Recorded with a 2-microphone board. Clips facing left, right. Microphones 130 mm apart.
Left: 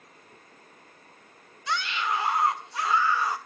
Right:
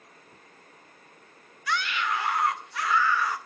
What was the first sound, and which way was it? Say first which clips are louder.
A scream: even; 25° left (ahead or behind).